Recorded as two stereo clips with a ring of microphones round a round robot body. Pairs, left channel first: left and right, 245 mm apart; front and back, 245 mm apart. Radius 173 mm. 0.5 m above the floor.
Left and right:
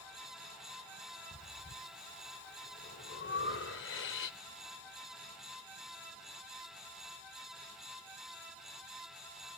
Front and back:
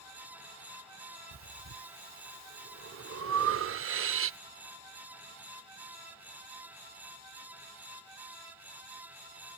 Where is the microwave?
I don't hear a microwave.